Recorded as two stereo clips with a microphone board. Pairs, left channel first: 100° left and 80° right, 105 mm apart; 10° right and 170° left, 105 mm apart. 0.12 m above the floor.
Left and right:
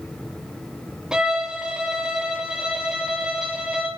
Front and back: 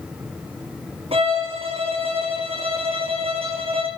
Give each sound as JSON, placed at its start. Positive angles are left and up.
{"t": 1.1, "sound": "a violin", "azimuth_deg": -165, "distance_m": 3.0}